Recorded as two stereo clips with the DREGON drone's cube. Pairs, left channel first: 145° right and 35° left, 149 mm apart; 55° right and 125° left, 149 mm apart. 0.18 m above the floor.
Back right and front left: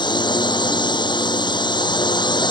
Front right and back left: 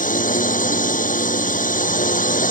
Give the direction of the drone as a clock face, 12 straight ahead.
3 o'clock.